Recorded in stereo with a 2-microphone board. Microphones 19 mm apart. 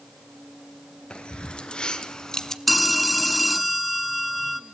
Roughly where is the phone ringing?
Centre.